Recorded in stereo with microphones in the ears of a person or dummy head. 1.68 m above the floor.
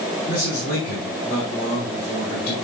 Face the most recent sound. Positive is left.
turn(degrees=70)  # may be behind; listen again after turning